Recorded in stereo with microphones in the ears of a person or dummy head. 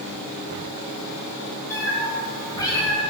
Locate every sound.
1.7 s a cat meowing: 20° left (ahead or behind), 5.5 m; by 3.0 s 25° left (ahead or behind), 6 m